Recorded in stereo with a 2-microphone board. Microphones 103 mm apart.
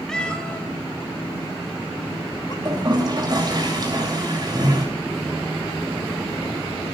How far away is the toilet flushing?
About 7.5 m.